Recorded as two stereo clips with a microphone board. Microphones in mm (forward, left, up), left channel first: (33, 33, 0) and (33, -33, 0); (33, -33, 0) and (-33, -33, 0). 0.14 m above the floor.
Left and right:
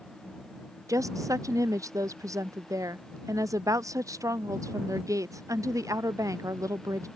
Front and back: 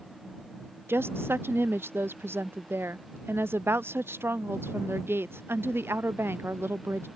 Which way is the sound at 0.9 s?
125° right.